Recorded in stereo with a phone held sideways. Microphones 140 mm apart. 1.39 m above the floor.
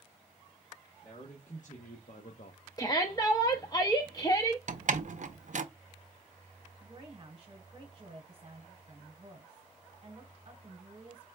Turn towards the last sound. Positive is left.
turn(degrees=-30)  # may be behind; listen again after turning